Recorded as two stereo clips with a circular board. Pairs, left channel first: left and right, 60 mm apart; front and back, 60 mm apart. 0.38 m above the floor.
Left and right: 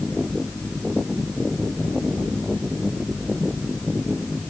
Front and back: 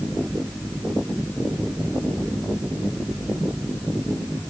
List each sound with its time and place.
Only background noise.